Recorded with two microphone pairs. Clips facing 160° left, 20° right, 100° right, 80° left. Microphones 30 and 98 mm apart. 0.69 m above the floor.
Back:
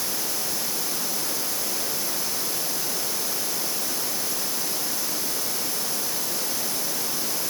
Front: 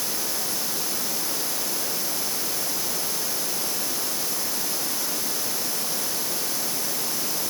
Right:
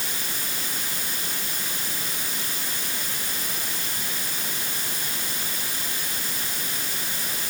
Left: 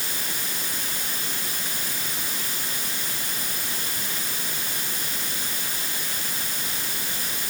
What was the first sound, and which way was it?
Only background noise.